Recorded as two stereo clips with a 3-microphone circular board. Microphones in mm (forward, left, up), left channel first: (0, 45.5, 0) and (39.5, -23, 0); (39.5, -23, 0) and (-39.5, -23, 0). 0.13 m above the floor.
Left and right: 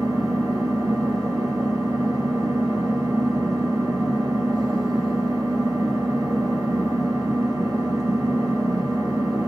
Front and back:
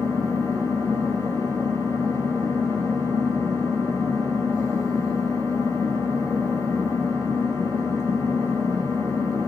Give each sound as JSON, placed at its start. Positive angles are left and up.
{"t": 0.0, "sound": "an engine running", "azimuth_deg": -45, "distance_m": 2.0}